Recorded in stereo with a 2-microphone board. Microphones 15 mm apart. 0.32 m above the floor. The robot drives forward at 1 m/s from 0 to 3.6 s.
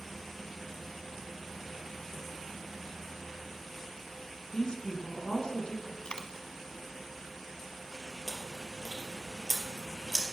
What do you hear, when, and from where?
4.5 s a woman speaking: 55° left (ahead or behind), 3 m
6.0 s a dropped coin: 65° left (ahead or behind), 1.2 m
8.3 s chewing: 5° right (ahead or behind), 3 m